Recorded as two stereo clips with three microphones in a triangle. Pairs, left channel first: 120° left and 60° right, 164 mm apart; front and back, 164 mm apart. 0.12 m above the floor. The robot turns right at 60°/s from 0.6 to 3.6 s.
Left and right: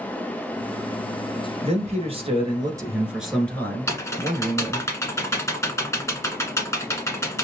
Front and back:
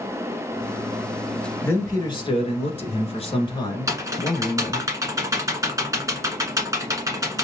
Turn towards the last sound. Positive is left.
turn(degrees=155)